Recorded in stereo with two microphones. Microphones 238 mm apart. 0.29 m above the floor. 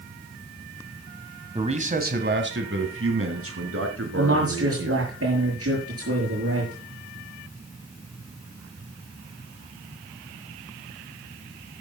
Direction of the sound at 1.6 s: 25° right (ahead or behind).